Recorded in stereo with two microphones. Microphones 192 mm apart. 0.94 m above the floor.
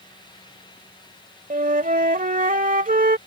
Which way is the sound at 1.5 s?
45° right (ahead or behind).